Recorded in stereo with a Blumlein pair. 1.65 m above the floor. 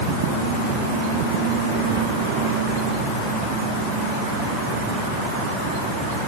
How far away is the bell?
No bell in this recording.